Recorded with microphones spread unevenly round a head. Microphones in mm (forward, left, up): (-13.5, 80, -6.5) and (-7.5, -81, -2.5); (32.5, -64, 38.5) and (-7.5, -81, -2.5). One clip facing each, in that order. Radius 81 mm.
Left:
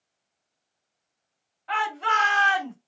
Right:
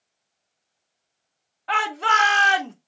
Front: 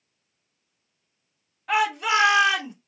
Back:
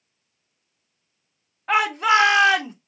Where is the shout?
110° right, 2 m; by 2.7 s 125° right, 1.8 m.